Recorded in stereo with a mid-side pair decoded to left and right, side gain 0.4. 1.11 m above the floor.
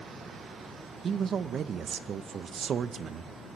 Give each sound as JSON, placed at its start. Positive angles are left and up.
{"t": 1.0, "sound": "a man speaking", "azimuth_deg": -60, "distance_m": 0.8}